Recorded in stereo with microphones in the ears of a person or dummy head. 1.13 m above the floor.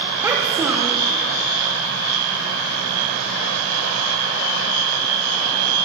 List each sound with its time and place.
0.2 s a child speaking: 20° right (ahead or behind), 0.7 m